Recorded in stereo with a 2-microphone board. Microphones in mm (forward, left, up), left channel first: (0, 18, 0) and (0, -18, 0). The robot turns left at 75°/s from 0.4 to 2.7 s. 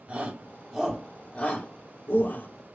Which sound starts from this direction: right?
A shout, at 0.1 s.